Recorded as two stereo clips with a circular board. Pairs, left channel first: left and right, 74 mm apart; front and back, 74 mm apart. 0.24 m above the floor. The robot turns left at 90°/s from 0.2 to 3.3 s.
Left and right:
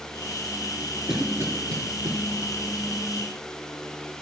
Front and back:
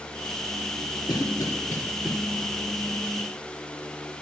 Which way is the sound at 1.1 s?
5° right.